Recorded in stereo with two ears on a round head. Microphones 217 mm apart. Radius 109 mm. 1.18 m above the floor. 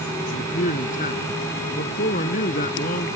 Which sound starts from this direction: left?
A man speaking, at 0.3 s.